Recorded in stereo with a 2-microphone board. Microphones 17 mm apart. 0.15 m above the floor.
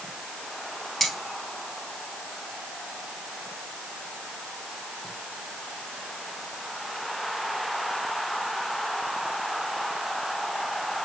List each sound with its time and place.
1.0 s cutlery clinking: 10° left (ahead or behind), 1.8 m